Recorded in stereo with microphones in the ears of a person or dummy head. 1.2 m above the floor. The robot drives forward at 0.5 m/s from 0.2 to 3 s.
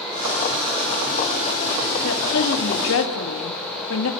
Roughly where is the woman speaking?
Left.